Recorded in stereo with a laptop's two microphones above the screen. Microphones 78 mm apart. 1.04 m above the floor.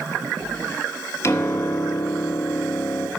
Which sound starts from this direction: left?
A piano, at 1.2 s.